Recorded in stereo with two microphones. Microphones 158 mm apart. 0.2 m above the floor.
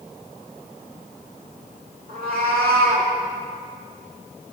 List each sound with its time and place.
2.1 s a cat meowing: 70° right (ahead or behind), 3 m; by 3.1 s 85° right, 2.5 m